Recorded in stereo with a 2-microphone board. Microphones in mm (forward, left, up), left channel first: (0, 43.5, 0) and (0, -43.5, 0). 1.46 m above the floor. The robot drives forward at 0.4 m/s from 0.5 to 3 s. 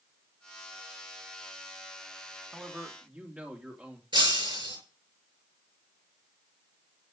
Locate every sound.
2.5 s a man speaking: 20° right (ahead or behind), 2.5 m; by 4.0 s 15° right (ahead or behind), 2.5 m
4.1 s breaking glass: 70° right (ahead or behind), 6 m